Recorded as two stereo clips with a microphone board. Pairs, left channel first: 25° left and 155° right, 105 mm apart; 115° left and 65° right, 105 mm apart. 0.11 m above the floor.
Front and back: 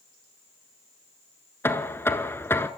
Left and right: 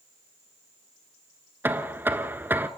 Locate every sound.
1.6 s knocking: 20° right, 0.9 m